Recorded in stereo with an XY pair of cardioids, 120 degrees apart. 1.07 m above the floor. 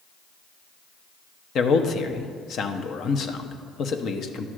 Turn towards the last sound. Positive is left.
turn(degrees=55)